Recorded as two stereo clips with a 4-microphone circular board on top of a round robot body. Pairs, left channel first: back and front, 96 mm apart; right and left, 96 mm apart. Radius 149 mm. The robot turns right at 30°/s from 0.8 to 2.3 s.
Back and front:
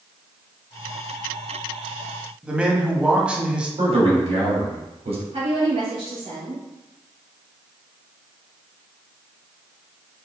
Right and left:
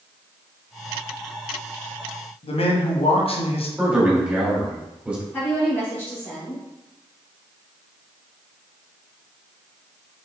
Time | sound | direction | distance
2.4 | a man speaking | 80° right | 1.6 m
3.8 | a man speaking | 10° left | 3 m
5.3 | a woman speaking | 15° right | 3.5 m